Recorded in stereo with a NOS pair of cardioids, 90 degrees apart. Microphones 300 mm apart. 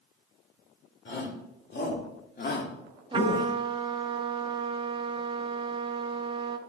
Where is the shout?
40° left, 4 m; by 3.5 s 30° left, 1.5 m.